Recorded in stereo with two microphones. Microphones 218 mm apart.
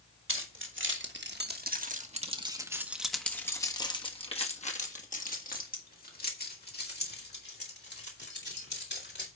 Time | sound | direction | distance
0.3 | keys jangling | 65° right (ahead or behind) | 1.7 m